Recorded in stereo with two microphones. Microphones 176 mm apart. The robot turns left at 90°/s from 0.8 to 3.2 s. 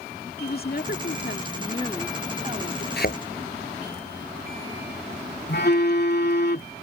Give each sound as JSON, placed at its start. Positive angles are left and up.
{"t": 0.4, "sound": "a woman speaking", "azimuth_deg": 120}
{"t": 3.0, "sound": "a thud", "side_deg": 70}
{"t": 5.5, "sound": "a phone buzzing", "side_deg": 70}